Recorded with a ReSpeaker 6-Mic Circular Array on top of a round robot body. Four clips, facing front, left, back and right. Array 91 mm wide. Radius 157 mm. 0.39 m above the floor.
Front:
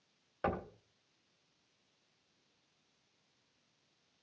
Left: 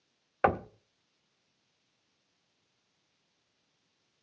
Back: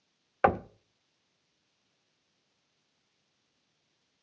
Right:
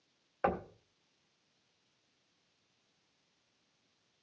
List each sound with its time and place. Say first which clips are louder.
0.4 s knocking: left 6 dB, back 11 dB; 145° left, 0.8 m